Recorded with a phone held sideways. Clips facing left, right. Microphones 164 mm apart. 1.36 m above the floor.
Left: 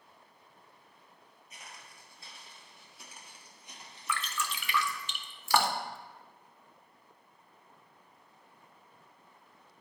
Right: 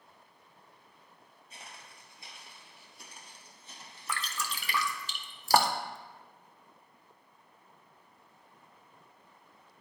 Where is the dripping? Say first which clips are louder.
Left 2 dB; 40° right (ahead or behind), 0.5 m.